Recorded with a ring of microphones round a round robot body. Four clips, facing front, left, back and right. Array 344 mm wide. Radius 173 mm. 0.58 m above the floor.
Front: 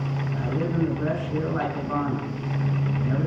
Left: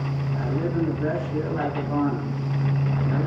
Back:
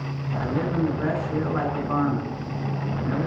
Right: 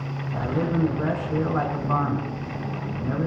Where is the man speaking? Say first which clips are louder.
Right 2 dB, back 2 dB; 105° right, 6 m.